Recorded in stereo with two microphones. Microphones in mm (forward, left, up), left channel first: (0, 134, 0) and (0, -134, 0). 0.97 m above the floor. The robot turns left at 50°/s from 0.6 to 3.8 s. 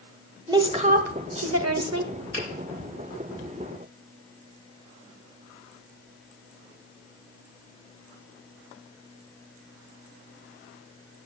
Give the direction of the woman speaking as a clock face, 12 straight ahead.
1 o'clock.